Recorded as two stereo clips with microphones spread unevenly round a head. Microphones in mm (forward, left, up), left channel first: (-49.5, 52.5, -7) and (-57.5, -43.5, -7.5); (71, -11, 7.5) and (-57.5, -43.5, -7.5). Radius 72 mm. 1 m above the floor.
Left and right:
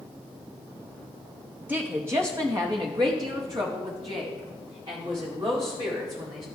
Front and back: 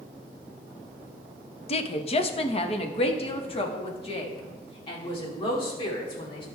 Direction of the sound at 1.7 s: 20° right.